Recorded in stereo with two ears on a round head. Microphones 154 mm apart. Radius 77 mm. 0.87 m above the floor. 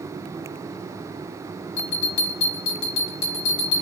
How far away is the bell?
About 1.3 m.